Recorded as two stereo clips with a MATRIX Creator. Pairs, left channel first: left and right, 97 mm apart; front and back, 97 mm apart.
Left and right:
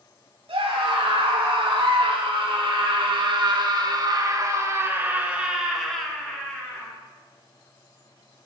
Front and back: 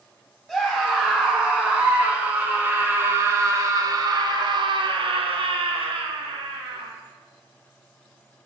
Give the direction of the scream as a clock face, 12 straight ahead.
3 o'clock.